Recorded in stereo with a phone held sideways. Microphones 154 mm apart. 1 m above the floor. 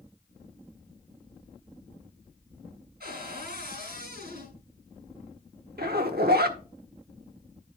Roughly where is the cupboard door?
Right.